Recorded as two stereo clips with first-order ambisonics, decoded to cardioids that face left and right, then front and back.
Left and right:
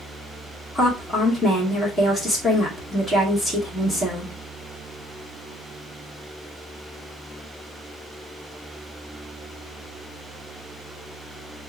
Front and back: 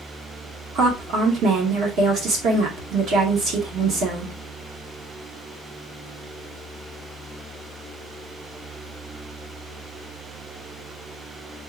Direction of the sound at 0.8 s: 170° left.